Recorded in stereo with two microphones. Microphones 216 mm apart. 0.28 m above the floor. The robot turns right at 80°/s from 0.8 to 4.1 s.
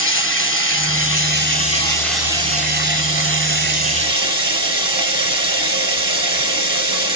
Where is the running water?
75° left, 1.1 m; by 7.2 s 25° right, 1.1 m.